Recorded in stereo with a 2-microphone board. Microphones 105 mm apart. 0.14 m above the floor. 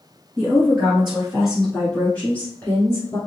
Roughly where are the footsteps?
No footsteps in this recording.